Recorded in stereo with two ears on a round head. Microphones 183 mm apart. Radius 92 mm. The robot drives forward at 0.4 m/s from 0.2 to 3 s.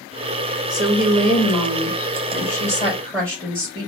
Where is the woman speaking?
20° right (ahead or behind), 1.5 m; by 3.9 s 15° right (ahead or behind), 2.5 m.